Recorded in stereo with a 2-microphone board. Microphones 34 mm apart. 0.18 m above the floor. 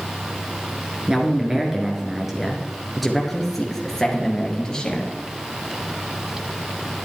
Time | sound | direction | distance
1.1 | a man speaking | 20° right (ahead or behind) | 2.5 m